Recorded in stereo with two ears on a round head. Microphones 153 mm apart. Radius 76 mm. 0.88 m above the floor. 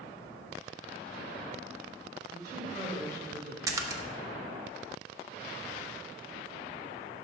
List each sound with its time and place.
2.3 s a woman speaking: 25° right (ahead or behind), 4 m
3.7 s a splash: 20° right (ahead or behind), 0.7 m